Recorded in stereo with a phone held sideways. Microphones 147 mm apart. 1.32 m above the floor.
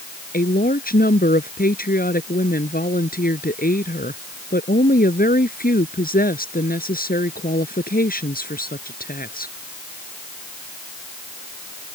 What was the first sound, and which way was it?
A woman speaking, 80° left.